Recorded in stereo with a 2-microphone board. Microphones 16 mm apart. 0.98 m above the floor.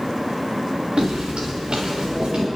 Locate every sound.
1.0 s footsteps: 75° right (ahead or behind), 4 m; by 2.5 s 80° right, 6 m